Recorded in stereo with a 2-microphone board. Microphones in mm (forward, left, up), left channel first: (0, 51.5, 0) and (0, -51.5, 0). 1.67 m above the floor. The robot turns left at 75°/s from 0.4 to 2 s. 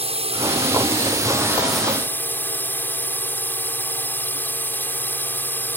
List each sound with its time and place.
0.0 s a drone: 80° right; by 5.8 s 160° left